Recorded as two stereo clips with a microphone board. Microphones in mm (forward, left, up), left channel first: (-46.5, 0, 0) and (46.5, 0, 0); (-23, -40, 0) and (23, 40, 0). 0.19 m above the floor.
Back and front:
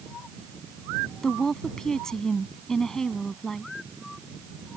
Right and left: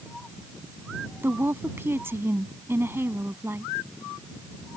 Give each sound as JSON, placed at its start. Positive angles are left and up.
{"t": 1.2, "sound": "a woman speaking", "azimuth_deg": 100}